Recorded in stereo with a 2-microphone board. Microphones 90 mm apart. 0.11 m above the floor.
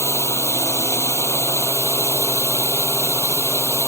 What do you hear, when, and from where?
0.0 s a drone: 30° left (ahead or behind)